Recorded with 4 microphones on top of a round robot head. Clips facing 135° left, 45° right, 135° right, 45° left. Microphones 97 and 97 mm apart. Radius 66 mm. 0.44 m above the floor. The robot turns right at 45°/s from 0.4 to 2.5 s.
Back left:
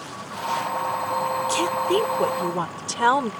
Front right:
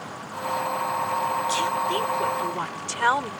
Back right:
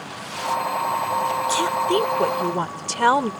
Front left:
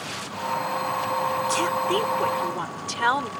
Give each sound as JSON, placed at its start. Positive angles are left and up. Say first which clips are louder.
{"t": 1.5, "sound": "a woman speaking", "louder": "back left 3 dB, back right 4 dB", "azimuth_deg": 145}